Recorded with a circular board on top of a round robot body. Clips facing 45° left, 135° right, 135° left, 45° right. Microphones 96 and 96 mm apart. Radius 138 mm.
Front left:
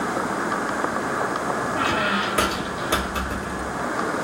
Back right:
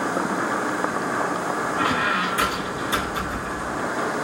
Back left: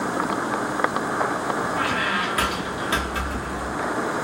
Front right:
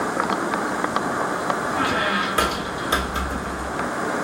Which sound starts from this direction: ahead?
A squeak, at 1.8 s.